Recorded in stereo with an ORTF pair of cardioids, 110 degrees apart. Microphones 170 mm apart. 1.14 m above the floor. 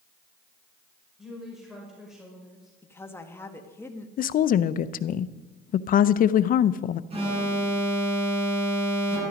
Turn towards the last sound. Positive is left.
turn(degrees=-35)